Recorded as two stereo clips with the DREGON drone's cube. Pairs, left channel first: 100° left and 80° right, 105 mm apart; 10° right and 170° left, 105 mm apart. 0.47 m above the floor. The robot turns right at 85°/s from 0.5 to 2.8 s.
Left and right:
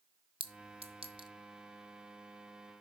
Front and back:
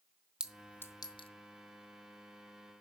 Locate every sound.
0.4 s a clink: 110° right, 0.7 m; by 1.3 s 40° right, 0.7 m